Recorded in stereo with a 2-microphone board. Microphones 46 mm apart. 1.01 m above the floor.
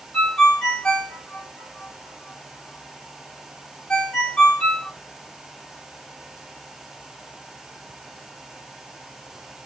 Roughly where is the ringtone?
Left.